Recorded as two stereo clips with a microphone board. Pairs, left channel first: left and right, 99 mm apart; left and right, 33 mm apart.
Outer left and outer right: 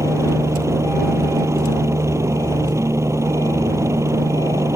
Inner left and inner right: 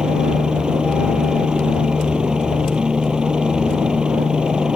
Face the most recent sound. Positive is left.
turn(degrees=-30)  # may be behind; listen again after turning